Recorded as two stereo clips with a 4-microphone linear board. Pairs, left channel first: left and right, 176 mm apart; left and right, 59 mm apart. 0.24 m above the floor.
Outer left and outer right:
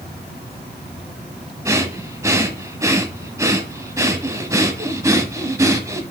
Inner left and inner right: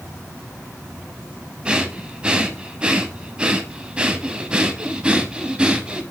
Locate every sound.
1.6 s breathing: 15° right (ahead or behind), 0.8 m